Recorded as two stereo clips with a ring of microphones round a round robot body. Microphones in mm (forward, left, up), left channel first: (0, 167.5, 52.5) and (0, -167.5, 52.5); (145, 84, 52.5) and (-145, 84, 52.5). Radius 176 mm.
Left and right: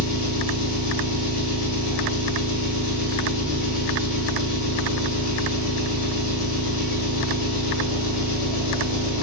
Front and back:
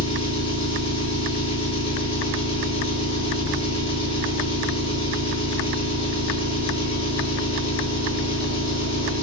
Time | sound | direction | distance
0.0 | an engine running | 65° left | 1.6 m